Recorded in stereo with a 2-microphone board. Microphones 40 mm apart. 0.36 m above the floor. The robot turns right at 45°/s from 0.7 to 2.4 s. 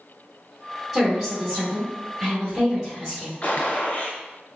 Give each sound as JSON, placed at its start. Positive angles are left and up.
{"t": 0.9, "sound": "a woman speaking", "side_deg": 0, "distance_m": 1.5}
{"t": 3.4, "sound": "a gunshot", "side_deg": 40, "distance_m": 0.7}